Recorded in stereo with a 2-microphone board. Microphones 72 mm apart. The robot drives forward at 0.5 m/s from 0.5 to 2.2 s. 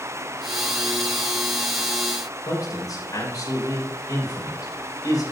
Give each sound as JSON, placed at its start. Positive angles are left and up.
{"t": 2.5, "sound": "a man speaking", "side_deg": 60, "distance_m": 5.5}